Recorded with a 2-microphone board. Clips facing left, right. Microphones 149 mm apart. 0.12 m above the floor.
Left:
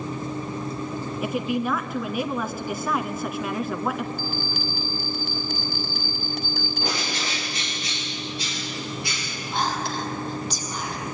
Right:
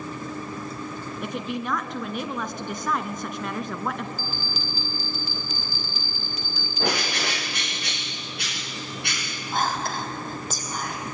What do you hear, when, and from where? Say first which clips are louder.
1.2 s a woman speaking: left 5 dB; 5° left (ahead or behind), 1.4 m
4.2 s a bell: left 5 dB; 55° left (ahead or behind), 3.5 m
6.8 s a bird: right 7 dB; 65° right (ahead or behind), 4 m
9.5 s whispering: even; 50° right (ahead or behind), 5 m